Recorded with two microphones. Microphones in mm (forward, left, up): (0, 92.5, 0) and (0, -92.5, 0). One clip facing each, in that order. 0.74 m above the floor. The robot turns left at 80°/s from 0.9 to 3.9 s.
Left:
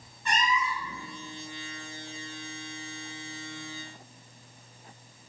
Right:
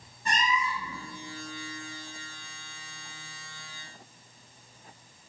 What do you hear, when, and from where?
0.2 s a cat meowing: 35° right (ahead or behind), 1.1 m; by 1.0 s 40° right (ahead or behind), 1.1 m